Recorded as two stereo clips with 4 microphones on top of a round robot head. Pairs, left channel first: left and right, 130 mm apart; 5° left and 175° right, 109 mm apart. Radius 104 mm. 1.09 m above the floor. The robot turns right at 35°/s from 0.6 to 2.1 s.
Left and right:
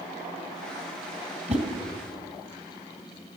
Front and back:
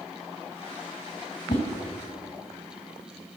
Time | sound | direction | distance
1.5 | a whoosh | 50° right | 2.5 m